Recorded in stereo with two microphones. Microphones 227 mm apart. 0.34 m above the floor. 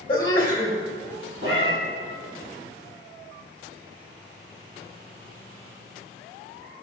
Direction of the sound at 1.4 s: 55° right (ahead or behind).